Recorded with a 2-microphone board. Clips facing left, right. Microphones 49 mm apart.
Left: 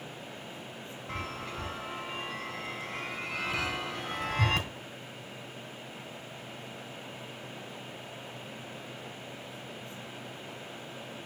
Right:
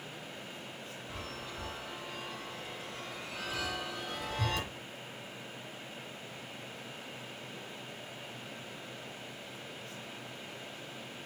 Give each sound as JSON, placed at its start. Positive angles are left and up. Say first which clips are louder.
{"t": 1.1, "sound": "a chime", "louder": "left 7 dB", "side_deg": 65, "distance_m": 2.5}